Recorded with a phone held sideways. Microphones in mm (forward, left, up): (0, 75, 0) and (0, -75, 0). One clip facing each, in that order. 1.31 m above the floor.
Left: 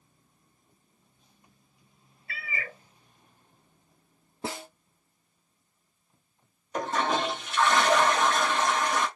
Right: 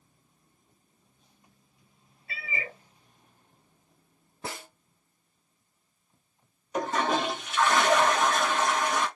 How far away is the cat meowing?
About 0.6 m.